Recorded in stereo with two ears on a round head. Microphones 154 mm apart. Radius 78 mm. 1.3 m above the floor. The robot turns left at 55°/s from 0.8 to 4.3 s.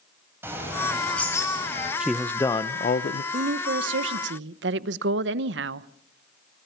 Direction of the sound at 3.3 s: 50° right.